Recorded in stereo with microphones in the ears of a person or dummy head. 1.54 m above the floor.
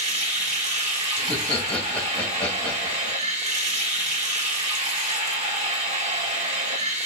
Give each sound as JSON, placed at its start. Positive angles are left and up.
{"t": 0.0, "sound": "running water", "side_deg": -35, "distance_m": 3.0}
{"t": 1.2, "sound": "laughter", "side_deg": 15, "distance_m": 2.5}